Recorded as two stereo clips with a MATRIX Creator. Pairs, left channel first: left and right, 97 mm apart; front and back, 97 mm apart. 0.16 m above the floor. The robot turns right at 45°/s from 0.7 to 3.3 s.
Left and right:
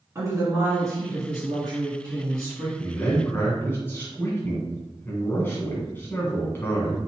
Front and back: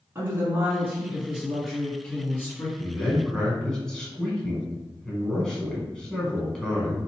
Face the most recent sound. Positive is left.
turn(degrees=75)